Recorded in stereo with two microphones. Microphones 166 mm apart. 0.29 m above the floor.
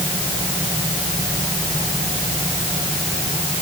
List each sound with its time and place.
Only background noise.